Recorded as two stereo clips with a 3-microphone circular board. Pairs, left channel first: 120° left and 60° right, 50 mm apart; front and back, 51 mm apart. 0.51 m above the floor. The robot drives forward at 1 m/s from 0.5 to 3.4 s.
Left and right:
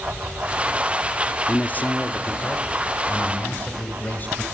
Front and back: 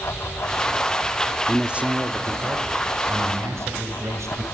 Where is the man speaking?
95° left, 0.7 m; by 4.4 s 170° left, 2 m.